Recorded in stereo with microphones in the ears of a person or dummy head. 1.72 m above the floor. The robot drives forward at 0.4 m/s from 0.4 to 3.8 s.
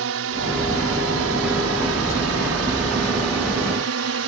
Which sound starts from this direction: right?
A drone, at 0.0 s.